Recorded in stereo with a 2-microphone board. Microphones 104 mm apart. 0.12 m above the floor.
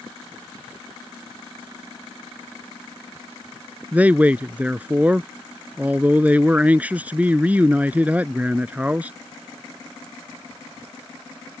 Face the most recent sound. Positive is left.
turn(degrees=-15)  # may be behind; listen again after turning